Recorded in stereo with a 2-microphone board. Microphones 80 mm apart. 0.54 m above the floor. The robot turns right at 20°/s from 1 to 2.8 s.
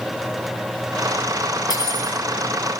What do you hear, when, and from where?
1.7 s cutlery clinking: 45° left (ahead or behind), 2.5 m; by 2.2 s 55° left (ahead or behind), 2.5 m